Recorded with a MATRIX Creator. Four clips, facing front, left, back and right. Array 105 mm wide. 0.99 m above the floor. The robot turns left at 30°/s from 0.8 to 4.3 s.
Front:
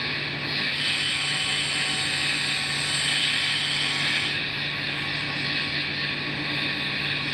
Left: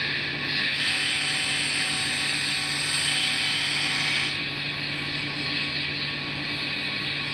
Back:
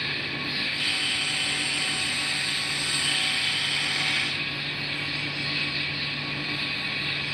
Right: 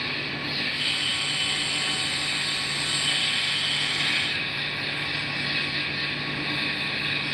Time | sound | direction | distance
0.0 | an insect | 70° left | 3 m